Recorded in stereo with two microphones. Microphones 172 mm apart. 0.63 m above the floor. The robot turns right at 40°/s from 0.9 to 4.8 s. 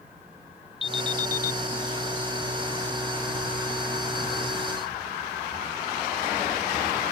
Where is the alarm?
30° left (ahead or behind); by 1.6 s 60° left (ahead or behind).